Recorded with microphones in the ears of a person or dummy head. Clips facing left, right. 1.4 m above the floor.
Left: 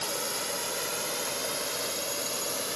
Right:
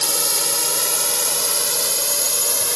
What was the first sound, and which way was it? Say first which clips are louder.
A drone: right 6 dB; 85° right.